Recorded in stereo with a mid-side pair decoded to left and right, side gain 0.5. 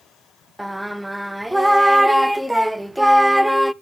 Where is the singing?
5° right, 0.5 m.